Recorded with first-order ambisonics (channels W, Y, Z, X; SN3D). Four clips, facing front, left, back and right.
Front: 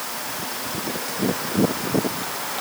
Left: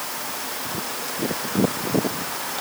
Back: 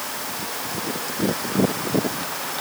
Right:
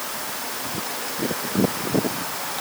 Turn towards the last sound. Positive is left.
No sound to turn to.